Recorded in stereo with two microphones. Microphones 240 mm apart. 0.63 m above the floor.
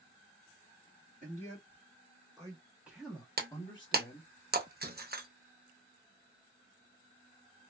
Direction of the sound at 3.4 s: 45° right (ahead or behind).